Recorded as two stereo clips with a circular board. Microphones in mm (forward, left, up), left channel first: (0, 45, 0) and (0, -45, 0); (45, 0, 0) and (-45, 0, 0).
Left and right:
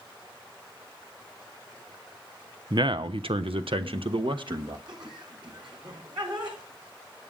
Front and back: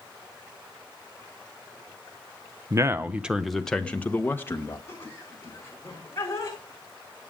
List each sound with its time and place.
2.7 s a man speaking: 130° right, 0.8 m; by 4.8 s 60° right, 1.7 m
4.9 s laughter: 60° right, 5.5 m